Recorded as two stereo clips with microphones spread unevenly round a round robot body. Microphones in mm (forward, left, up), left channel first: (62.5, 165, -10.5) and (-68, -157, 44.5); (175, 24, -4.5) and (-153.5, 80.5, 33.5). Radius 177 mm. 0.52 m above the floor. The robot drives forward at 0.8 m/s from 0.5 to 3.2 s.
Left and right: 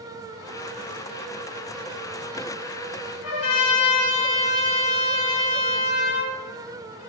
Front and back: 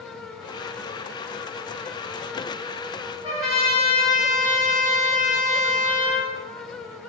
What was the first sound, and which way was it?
A trumpet, 95° left.